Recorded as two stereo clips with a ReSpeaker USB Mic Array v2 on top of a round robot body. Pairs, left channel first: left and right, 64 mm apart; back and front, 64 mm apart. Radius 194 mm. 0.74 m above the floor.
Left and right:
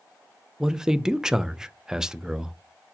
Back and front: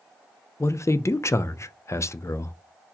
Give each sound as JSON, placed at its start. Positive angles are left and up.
{"t": 0.6, "sound": "a man speaking", "azimuth_deg": -165, "distance_m": 0.5}